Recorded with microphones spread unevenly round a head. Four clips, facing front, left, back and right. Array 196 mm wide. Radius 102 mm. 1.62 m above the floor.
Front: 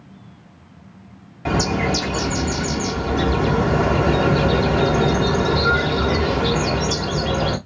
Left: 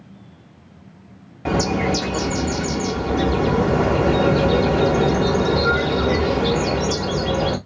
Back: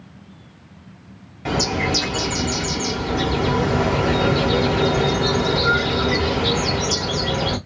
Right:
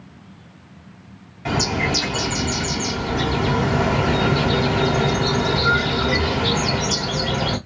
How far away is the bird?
About 1.3 m.